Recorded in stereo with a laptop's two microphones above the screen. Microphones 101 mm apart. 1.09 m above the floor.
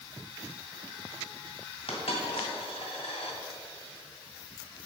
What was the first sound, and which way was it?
A dropped coin, 70° left (ahead or behind).